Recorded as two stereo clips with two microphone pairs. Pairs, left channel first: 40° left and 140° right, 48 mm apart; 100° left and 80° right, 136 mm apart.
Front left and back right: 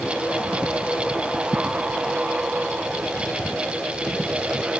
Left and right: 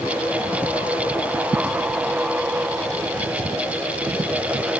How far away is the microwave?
No microwave in this recording.